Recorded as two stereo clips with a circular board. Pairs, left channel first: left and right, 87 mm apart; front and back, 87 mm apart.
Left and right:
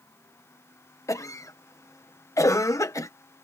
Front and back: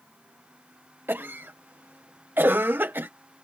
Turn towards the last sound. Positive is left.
turn(degrees=125)